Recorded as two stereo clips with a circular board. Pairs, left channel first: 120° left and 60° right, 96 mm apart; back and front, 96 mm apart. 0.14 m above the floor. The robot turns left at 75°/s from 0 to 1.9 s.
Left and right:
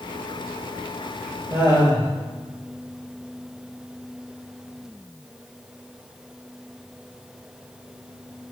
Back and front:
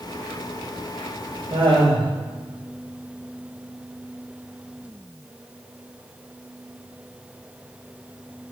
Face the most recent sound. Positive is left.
turn(degrees=-25)